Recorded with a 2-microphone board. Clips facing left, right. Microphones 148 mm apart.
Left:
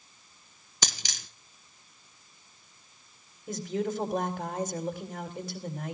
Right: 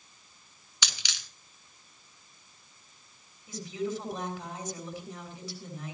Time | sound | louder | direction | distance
0.8 | a dropped coin | left 4 dB | 45° left (ahead or behind) | 1.1 m
3.5 | a woman speaking | left 3 dB | 55° left (ahead or behind) | 3.5 m